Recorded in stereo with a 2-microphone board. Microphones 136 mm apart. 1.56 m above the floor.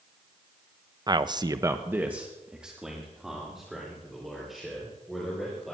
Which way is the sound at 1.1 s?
30° right (ahead or behind).